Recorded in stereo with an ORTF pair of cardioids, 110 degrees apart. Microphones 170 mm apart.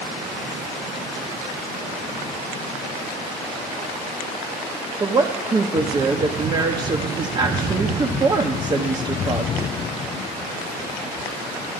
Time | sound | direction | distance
5.0 | a woman speaking | 25° right | 1.0 m